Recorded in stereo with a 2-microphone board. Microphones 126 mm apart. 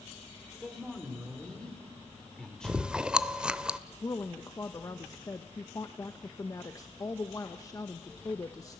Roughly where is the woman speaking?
Left.